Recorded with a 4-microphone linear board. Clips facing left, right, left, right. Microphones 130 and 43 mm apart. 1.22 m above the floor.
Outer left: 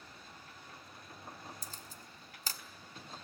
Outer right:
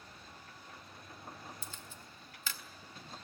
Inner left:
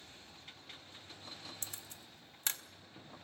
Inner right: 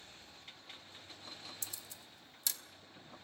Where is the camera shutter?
40° left (ahead or behind), 0.7 m.